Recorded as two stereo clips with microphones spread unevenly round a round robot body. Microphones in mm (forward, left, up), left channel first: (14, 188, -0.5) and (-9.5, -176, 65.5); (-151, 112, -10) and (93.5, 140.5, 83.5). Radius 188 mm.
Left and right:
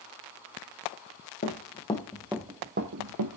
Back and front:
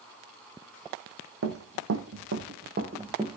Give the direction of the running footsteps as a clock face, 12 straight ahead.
11 o'clock.